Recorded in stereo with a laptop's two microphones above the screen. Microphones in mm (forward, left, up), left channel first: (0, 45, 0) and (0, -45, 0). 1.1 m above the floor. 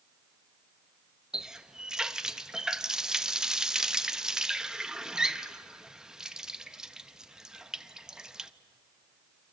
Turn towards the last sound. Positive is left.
turn(degrees=-10)  # may be behind; listen again after turning